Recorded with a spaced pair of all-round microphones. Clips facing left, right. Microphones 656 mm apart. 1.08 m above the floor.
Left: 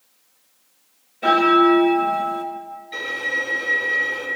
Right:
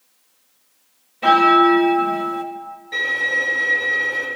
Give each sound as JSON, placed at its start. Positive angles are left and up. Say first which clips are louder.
{"t": 1.2, "sound": "a bell", "louder": "even", "side_deg": -35, "distance_m": 0.5}
{"t": 2.9, "sound": "a violin", "louder": "right 1 dB", "side_deg": -70, "distance_m": 1.8}